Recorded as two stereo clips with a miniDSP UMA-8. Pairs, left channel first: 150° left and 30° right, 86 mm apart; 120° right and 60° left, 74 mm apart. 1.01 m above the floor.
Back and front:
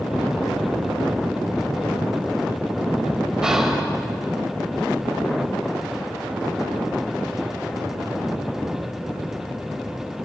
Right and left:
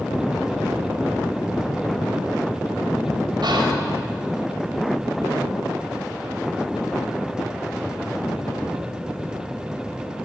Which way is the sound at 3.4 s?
50° left.